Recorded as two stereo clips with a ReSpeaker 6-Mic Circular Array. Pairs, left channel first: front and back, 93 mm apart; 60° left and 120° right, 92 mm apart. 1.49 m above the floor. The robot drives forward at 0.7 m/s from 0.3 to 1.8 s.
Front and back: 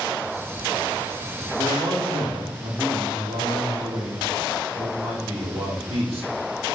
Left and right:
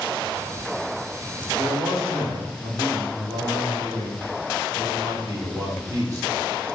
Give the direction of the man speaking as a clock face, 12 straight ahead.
6 o'clock.